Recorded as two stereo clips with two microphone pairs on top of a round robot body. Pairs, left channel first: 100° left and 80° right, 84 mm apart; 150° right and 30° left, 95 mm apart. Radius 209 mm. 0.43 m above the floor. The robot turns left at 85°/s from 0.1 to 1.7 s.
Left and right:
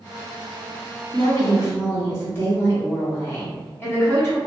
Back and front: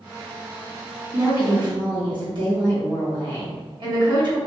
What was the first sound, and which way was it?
A woman speaking, 95° left.